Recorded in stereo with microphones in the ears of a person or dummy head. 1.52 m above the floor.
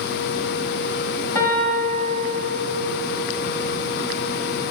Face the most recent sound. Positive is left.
turn(degrees=20)  # may be behind; listen again after turning